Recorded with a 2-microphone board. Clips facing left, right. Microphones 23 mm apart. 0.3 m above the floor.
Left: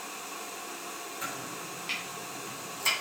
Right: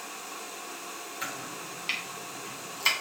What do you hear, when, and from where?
1.2 s chopping: 35° right (ahead or behind), 2.5 m